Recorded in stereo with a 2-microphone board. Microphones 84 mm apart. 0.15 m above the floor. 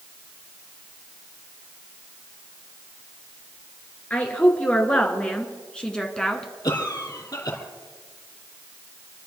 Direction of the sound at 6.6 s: 55° left (ahead or behind).